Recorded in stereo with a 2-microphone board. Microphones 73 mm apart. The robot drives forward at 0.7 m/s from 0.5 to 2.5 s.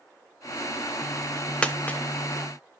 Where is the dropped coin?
15° left (ahead or behind), 0.7 m; by 2.0 s 25° left (ahead or behind), 0.5 m.